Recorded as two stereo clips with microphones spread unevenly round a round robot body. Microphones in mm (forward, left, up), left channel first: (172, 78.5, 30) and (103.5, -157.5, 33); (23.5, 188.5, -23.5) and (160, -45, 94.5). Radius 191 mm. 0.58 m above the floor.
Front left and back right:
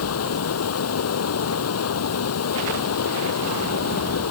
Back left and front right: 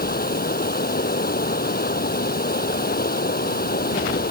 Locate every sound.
0.0 s running water: 65° left